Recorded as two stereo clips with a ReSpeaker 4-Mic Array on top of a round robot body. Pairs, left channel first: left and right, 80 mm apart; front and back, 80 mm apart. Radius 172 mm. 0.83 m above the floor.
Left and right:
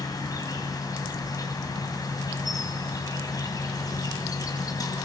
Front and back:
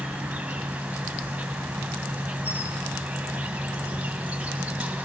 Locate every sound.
0.0 s an insect: 110° left, 2.5 m